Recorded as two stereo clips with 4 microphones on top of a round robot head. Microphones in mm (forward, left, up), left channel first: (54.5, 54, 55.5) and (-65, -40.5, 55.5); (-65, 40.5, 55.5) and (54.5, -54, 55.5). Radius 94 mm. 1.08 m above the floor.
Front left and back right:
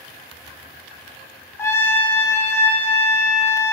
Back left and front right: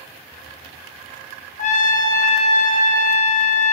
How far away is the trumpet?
About 1.4 m.